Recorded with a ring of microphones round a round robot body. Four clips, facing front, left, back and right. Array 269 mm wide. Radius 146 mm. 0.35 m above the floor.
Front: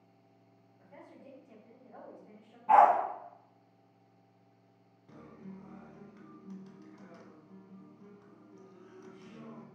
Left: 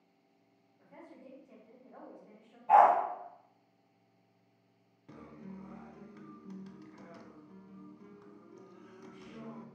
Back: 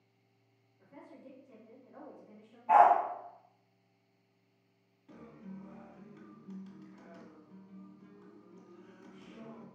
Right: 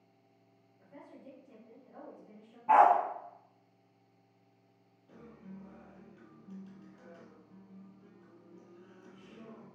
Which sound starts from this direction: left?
A guitar, at 5.1 s.